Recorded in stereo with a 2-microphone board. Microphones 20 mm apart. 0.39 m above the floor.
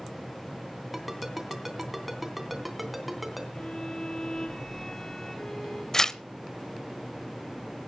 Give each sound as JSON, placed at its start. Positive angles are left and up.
{"t": 0.9, "sound": "a ringtone", "side_deg": 0, "distance_m": 3.0}
{"t": 3.5, "sound": "a violin", "side_deg": 30, "distance_m": 4.0}
{"t": 5.9, "sound": "tearing paper", "side_deg": 25, "distance_m": 0.5}